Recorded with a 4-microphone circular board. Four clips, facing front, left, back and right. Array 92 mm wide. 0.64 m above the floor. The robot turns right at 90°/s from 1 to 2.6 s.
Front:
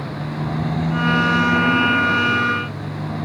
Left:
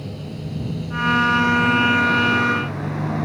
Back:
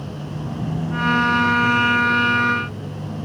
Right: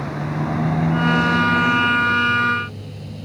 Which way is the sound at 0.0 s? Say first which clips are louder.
Right 8 dB, front 4 dB; 65° right.